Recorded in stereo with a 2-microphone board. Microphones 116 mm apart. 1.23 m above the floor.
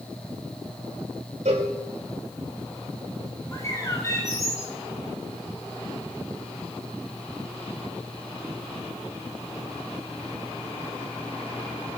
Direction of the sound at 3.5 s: 25° left (ahead or behind).